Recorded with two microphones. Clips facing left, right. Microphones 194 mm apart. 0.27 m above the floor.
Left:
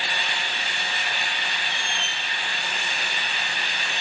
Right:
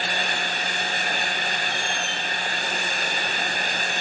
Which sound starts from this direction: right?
A squeak, at 1.7 s.